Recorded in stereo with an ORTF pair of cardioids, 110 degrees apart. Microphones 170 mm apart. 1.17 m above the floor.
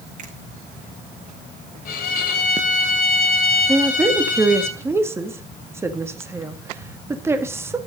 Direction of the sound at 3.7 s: 15° right.